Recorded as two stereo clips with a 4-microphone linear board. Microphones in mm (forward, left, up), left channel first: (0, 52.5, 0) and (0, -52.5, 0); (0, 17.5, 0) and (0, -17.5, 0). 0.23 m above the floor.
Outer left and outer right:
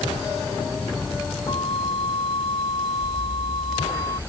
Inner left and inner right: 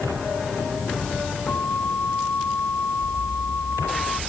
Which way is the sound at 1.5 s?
55° left (ahead or behind).